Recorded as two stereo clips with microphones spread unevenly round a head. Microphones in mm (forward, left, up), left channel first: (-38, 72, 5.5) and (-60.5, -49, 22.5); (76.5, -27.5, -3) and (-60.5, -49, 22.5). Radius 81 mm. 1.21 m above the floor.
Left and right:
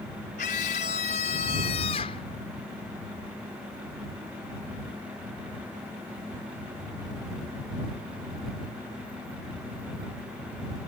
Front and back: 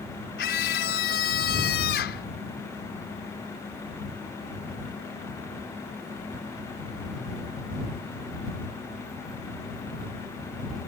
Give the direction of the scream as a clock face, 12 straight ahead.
11 o'clock.